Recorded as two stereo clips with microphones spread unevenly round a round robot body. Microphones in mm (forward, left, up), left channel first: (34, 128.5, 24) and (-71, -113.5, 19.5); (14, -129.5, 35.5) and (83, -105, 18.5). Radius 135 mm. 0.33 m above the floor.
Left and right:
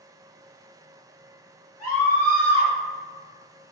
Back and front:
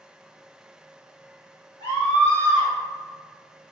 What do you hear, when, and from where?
1.8 s a scream: 85° left, 1.8 m